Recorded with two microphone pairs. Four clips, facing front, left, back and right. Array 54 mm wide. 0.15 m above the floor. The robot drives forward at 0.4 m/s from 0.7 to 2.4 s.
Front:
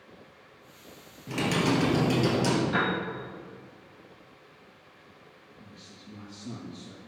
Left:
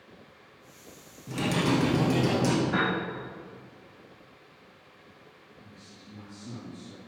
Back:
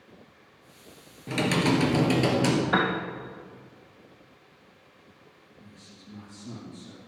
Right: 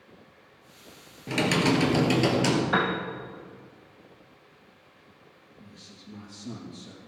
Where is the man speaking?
70° right, 4.5 m.